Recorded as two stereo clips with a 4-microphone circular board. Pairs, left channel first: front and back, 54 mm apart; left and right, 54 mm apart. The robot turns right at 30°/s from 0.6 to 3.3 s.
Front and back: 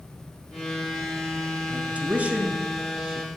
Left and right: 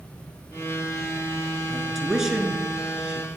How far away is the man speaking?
About 1.1 m.